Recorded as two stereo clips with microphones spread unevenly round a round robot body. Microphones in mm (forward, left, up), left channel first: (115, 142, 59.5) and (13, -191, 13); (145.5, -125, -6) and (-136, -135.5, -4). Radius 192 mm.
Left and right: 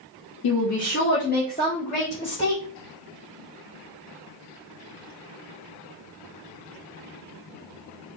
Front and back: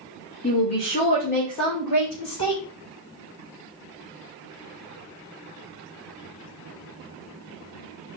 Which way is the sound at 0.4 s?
50° left.